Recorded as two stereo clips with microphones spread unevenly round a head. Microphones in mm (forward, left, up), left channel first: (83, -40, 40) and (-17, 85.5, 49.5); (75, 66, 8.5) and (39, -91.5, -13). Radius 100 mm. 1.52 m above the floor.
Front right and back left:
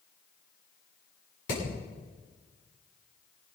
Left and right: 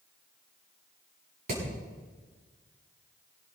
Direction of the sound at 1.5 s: 75° right.